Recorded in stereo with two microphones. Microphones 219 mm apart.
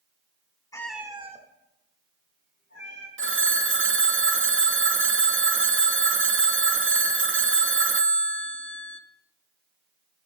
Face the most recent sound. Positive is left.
turn(degrees=-60)  # may be behind; listen again after turning